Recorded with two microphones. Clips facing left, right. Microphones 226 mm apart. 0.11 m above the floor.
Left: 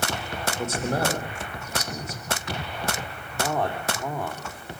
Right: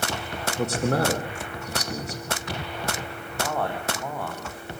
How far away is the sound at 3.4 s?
About 4 m.